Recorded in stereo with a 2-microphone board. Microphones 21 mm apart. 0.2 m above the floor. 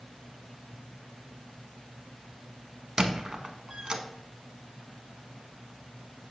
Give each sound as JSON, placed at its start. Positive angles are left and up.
{"t": 3.0, "sound": "a squeak", "side_deg": -45, "distance_m": 0.7}